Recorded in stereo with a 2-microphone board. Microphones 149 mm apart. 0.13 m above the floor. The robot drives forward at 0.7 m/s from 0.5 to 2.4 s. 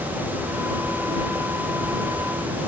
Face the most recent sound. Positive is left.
No sound to turn to.